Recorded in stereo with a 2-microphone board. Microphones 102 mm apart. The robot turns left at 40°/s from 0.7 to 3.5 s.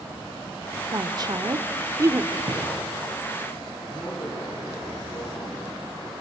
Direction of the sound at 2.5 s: 50° right (ahead or behind).